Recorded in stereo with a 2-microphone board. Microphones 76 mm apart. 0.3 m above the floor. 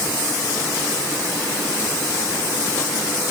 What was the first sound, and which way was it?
Only background noise.